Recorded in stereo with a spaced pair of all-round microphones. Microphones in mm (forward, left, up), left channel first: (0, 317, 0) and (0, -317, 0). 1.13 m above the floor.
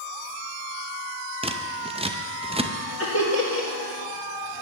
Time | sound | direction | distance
1.4 | scissors | 10° right (ahead or behind) | 0.5 m
3.0 | laughter | 20° left (ahead or behind) | 1.8 m